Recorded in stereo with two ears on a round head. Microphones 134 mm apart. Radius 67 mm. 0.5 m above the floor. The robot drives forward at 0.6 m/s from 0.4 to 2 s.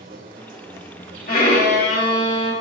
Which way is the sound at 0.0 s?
60° right (ahead or behind).